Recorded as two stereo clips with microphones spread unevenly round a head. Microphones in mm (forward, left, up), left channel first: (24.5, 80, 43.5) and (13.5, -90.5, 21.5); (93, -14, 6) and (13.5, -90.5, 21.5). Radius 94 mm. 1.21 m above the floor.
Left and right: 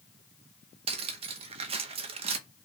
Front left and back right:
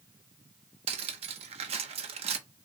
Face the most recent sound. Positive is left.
turn(degrees=-155)